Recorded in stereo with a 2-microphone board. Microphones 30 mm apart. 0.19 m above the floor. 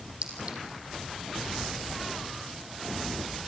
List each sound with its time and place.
0.2 s a clink: 45° right (ahead or behind), 4 m